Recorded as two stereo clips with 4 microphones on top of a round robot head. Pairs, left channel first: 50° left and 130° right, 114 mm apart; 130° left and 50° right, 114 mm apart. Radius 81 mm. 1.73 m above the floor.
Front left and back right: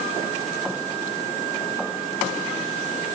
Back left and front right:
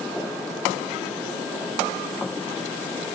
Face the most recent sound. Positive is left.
No sound to turn to.